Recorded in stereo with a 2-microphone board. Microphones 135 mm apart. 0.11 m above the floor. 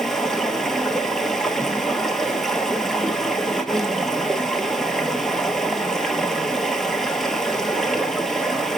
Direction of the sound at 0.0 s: 5° left (ahead or behind).